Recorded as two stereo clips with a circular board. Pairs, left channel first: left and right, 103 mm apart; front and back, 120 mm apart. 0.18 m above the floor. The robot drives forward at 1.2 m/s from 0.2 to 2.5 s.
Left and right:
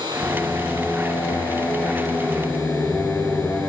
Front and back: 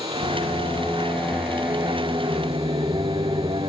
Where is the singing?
20° left, 1.9 m; by 3.7 s 160° left, 2.0 m.